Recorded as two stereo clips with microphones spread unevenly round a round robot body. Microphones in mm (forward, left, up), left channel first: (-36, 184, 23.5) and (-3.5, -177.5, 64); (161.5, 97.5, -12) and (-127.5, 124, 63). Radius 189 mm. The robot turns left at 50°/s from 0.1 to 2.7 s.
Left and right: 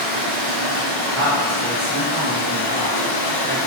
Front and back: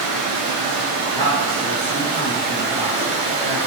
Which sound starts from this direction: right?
A man speaking, at 1.1 s.